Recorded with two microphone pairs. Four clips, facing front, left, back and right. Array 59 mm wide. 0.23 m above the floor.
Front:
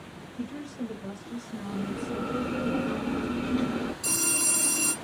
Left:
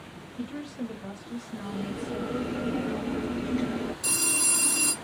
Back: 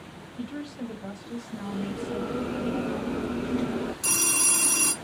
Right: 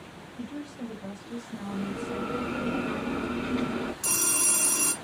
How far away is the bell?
About 1.7 m.